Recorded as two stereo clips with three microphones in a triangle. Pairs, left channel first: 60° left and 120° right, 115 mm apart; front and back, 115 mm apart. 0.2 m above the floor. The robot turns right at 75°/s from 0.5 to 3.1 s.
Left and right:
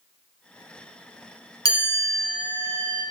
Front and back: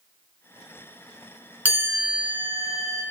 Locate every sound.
1.6 s a chime: 105° left, 2.5 m; by 3.0 s 150° right, 2.5 m